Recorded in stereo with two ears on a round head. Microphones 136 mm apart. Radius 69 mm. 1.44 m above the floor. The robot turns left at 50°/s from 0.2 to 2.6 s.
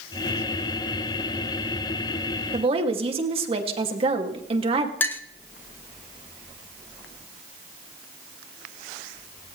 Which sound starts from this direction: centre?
A clink, at 5.0 s.